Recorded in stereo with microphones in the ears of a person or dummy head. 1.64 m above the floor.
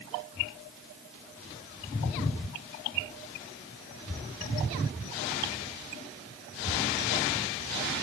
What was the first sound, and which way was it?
Only background noise.